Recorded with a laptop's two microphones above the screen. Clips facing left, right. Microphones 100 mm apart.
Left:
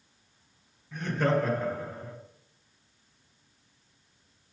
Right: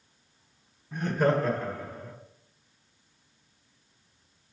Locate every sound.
0.9 s laughter: 20° right (ahead or behind), 1.0 m; by 2.1 s 35° left (ahead or behind), 1.1 m